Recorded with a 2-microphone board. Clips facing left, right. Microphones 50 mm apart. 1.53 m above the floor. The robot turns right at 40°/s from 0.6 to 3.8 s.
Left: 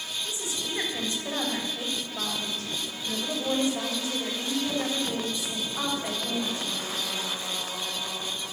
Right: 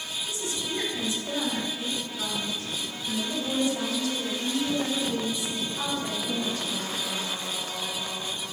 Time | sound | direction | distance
0.2 | a woman speaking | 20° left | 4.5 m